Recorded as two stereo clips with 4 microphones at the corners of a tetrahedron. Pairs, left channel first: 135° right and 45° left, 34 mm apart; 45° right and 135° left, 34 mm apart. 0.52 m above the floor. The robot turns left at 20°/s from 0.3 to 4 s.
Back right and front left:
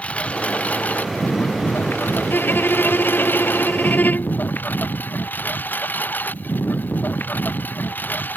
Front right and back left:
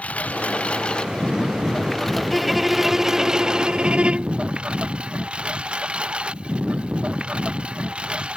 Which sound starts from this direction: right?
A lawn mower, at 0.0 s.